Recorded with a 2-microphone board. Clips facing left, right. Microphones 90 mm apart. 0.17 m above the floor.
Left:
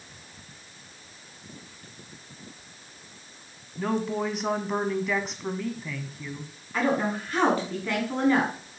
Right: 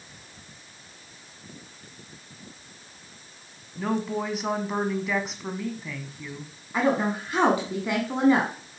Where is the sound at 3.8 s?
Centre (ahead or behind), 1.1 m.